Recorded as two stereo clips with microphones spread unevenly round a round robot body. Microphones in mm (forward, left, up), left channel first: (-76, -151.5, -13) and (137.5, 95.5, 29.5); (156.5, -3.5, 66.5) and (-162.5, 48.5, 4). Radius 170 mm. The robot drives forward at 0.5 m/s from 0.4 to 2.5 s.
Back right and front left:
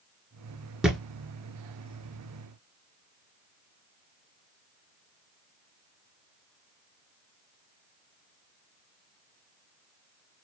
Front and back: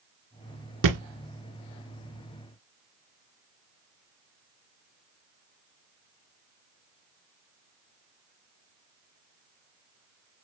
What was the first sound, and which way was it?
A thud, 135° left.